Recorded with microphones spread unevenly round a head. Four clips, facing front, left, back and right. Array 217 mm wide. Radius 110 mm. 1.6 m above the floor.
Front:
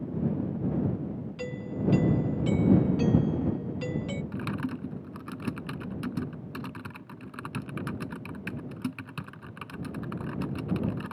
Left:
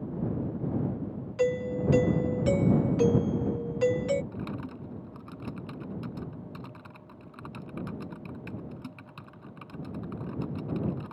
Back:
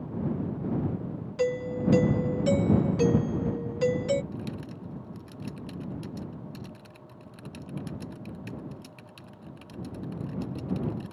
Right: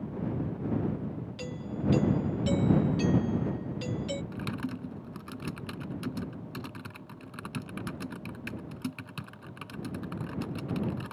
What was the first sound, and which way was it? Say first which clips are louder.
A doorbell: left 11 dB, back 8 dB; 135° left.